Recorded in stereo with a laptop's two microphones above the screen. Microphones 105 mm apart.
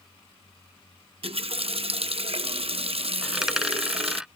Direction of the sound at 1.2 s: 65° right (ahead or behind).